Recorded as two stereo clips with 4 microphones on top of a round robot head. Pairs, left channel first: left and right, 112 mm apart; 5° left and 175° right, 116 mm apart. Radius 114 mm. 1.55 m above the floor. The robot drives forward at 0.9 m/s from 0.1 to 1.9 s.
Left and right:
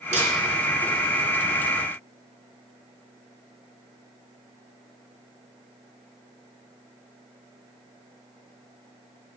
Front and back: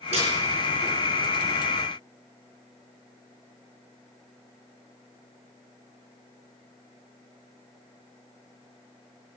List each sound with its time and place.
0.1 s a snare drum: 130° right, 5 m